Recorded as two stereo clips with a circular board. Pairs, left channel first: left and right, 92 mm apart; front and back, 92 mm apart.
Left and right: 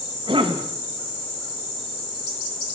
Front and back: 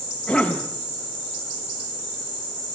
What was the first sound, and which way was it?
A cough, 90° right.